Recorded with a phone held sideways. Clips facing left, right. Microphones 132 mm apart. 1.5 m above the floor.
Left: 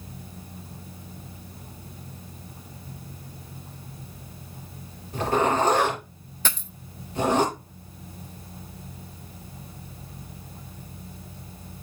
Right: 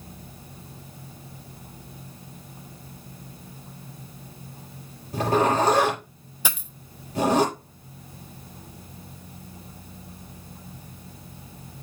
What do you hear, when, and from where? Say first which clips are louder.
5.1 s a zipper: right 1 dB; 35° right (ahead or behind), 5.5 m
6.5 s a dropped coin: even; 10° right (ahead or behind), 0.9 m